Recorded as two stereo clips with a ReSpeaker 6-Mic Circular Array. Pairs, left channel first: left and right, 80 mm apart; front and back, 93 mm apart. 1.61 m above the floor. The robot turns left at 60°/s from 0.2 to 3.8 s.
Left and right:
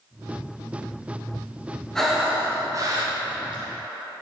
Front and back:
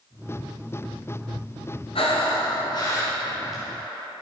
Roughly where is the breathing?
Ahead.